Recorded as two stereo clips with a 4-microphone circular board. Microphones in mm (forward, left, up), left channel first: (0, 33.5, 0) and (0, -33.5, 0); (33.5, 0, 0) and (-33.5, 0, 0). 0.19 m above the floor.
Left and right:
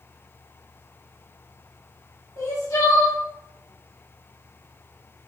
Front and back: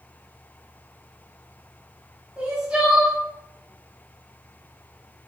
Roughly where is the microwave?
No microwave in this recording.